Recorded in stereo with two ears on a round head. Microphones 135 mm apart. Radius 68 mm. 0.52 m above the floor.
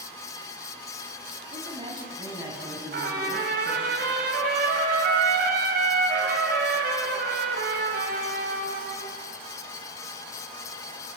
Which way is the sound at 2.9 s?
65° right (ahead or behind).